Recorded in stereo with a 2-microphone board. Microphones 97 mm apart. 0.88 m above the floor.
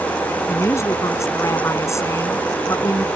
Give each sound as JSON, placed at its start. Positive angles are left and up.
{"t": 0.5, "sound": "a woman speaking", "side_deg": 30}